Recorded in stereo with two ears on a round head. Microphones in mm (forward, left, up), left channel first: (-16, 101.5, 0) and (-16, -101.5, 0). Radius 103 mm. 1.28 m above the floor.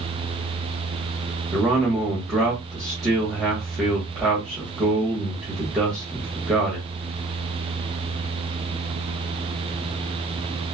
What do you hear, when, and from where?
1.5 s a man speaking: centre (ahead or behind), 1.2 m